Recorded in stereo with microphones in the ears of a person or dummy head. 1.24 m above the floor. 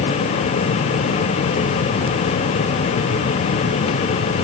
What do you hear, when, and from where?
Only background noise.